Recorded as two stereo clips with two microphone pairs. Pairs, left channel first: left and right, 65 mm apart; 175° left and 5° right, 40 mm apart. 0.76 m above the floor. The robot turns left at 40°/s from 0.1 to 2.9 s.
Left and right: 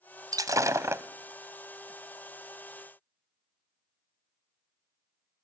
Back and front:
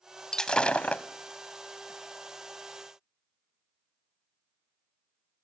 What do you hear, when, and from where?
0.3 s breaking glass: 105° right, 1.3 m; by 1.0 s 135° right, 1.3 m